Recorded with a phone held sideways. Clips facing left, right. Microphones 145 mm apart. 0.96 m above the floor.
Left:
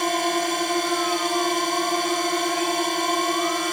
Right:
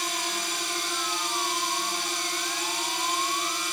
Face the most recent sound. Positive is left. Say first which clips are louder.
# left 11 dB
turn(degrees=60)  # may be behind; listen again after turning